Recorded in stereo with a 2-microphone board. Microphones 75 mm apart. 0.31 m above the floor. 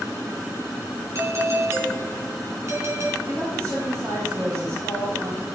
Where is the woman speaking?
50° right (ahead or behind), 6 m.